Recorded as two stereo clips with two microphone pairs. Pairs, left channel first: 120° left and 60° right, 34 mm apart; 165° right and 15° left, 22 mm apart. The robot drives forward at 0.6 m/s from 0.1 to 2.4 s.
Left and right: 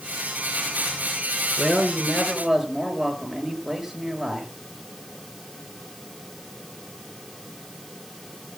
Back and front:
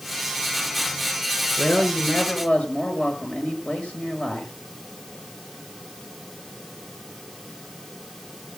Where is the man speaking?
150° right, 5.5 m.